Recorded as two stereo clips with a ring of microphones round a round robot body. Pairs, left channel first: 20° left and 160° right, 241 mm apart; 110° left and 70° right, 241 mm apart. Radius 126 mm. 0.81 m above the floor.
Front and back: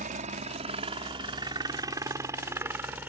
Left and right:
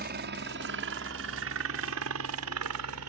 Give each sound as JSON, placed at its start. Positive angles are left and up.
{"t": 0.0, "sound": "a helicopter", "azimuth_deg": -105}